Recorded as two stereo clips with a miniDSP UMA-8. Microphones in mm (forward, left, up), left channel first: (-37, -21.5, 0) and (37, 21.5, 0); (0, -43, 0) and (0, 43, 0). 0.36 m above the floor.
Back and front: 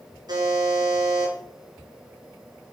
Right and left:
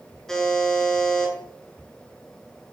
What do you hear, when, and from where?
0.3 s a buzzer: 5° right, 3 m